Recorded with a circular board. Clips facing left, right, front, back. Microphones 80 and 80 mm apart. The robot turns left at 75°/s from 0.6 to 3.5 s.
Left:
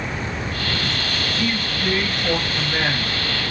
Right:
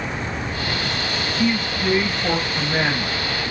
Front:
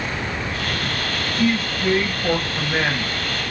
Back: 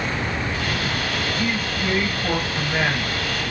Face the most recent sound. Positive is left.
turn(degrees=-135)